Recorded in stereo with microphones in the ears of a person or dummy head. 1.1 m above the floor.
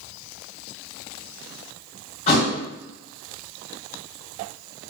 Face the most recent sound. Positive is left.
turn(degrees=40)  # may be behind; listen again after turning